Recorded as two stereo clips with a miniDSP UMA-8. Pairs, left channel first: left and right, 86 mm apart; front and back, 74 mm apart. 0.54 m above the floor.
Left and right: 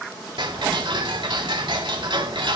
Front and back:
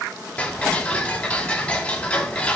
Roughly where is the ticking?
Right.